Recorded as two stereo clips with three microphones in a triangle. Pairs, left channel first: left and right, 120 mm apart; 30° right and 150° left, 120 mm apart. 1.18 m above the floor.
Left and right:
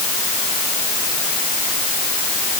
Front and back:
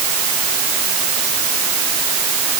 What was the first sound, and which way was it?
Only background noise.